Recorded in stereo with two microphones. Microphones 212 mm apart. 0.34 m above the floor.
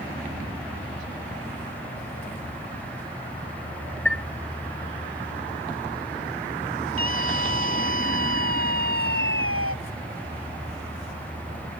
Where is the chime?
5° left (ahead or behind).